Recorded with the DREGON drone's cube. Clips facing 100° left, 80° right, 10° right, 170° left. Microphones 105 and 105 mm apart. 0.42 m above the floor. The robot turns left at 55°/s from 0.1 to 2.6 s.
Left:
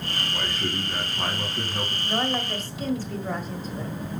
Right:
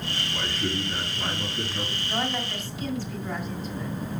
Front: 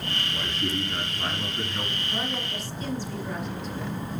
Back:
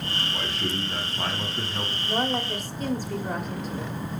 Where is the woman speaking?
170° left, 1.2 m; by 4.0 s 140° left, 1.2 m.